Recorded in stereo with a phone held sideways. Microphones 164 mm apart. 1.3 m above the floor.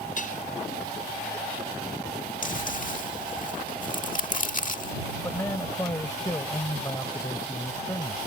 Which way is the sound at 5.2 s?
15° left (ahead or behind).